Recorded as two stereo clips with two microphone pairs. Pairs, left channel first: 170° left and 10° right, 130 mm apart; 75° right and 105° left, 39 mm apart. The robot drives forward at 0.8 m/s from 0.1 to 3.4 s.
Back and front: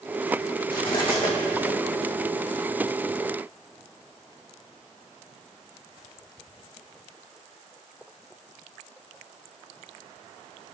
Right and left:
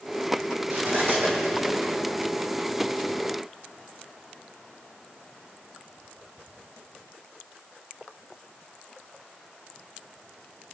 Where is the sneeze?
No sneeze in this recording.